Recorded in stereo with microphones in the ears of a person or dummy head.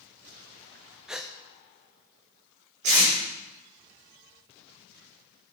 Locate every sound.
1.1 s a gasp: 5° right (ahead or behind), 0.5 m
2.8 s tape being pulled: 85° right, 4 m